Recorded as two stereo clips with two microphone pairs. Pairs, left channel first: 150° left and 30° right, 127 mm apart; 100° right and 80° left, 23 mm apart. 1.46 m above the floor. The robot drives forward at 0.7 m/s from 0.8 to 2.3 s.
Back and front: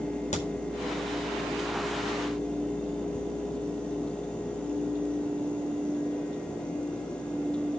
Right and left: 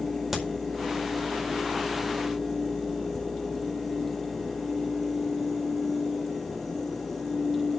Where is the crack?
170° left, 4.5 m.